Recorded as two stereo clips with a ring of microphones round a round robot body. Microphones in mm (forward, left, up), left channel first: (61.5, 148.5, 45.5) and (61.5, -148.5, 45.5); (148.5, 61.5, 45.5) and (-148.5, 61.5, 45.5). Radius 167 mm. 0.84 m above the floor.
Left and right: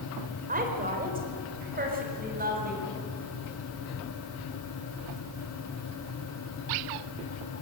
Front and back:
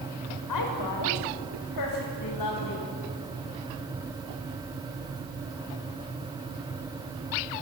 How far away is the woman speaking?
About 4 m.